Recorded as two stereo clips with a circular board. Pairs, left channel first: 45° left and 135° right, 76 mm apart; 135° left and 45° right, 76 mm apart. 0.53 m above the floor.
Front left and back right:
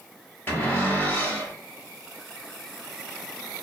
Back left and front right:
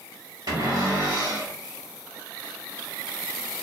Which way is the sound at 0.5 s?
20° right.